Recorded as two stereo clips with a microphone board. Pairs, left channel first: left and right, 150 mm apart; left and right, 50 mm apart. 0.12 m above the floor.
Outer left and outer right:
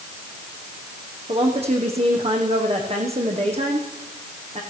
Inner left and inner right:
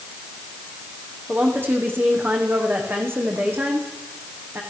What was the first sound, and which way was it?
A woman speaking, 45° right (ahead or behind).